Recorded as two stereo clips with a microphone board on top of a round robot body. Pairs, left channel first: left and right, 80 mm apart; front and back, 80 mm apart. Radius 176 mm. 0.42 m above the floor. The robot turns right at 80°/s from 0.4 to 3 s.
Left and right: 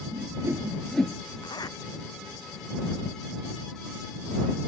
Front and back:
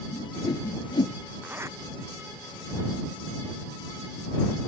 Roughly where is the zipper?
Left.